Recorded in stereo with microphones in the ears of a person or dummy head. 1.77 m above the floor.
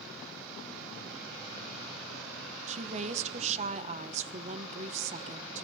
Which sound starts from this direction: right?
A woman speaking, at 2.7 s.